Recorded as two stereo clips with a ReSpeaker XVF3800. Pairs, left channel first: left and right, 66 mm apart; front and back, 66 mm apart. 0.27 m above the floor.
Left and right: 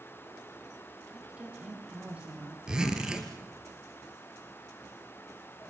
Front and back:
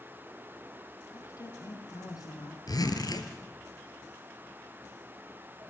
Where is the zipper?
10° right, 3.5 m.